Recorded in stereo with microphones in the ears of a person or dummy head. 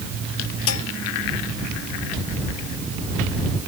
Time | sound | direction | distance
0.7 | dishes clattering | 90° left | ?